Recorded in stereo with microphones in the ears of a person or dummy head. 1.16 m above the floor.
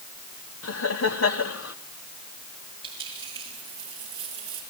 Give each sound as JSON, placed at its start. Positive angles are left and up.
{"t": 0.6, "sound": "laughter", "side_deg": 75, "distance_m": 2.5}
{"t": 2.8, "sound": "a dropped coin", "side_deg": -25, "distance_m": 6.5}